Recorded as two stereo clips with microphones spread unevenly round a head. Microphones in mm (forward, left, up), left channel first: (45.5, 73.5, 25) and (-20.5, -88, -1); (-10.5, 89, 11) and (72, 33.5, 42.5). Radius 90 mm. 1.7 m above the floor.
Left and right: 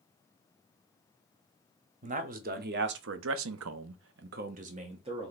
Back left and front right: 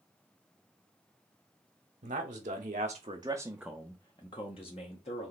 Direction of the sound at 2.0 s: 65° right.